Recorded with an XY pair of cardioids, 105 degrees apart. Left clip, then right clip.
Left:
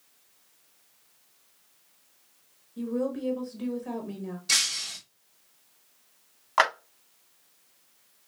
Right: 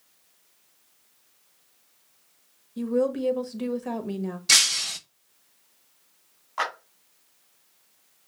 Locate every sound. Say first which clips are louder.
2.8 s a woman speaking: right 6 dB; 50° right, 1.1 m
4.5 s breaking glass: right 6 dB; 45° right, 0.6 m
6.6 s a clap: left 6 dB; 70° left, 1.7 m